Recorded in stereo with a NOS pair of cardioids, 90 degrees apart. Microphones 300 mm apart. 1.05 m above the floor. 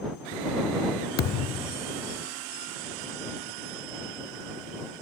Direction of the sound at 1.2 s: 60° left.